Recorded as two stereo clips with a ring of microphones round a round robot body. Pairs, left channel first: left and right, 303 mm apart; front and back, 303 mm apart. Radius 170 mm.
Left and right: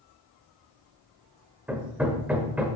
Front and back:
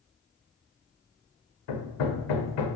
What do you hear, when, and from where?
1.7 s hammering: 5° right, 1.4 m